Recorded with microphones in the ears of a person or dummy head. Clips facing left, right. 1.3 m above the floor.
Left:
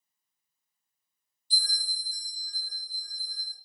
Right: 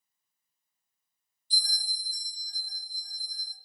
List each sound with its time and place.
1.5 s a bell: 50° left (ahead or behind), 1.4 m